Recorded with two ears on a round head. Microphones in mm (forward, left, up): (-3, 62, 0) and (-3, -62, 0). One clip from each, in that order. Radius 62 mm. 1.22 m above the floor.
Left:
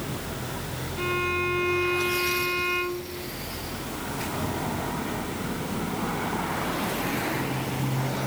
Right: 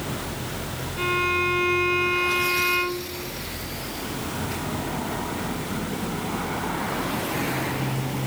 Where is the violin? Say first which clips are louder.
Right 4 dB; 20° right (ahead or behind).